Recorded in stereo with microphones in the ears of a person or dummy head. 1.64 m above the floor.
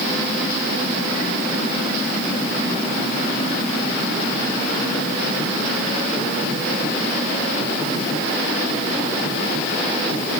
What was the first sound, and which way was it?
Only background noise.